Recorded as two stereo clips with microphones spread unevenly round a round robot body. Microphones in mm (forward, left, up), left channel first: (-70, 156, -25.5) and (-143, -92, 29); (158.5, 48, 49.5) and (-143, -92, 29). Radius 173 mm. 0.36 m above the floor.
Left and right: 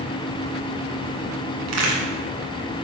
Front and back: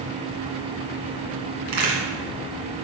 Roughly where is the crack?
Behind right.